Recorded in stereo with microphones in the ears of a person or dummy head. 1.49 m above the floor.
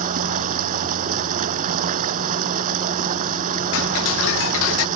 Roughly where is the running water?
Right.